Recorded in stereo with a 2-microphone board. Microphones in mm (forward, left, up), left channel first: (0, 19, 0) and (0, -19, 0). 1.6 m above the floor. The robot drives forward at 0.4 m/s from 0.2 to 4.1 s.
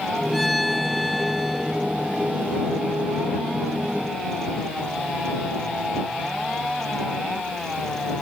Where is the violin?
Centre (ahead or behind).